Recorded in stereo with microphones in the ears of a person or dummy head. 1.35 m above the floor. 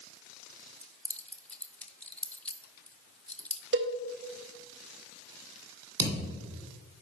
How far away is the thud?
About 2 m.